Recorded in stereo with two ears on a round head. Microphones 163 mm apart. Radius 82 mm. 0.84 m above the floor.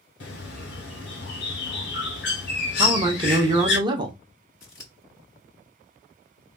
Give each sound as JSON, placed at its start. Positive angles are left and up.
{"t": 0.2, "sound": "a bird", "side_deg": 60, "distance_m": 1.6}
{"t": 2.8, "sound": "a man speaking", "side_deg": -25, "distance_m": 0.7}
{"t": 4.6, "sound": "scissors", "side_deg": 20, "distance_m": 2.0}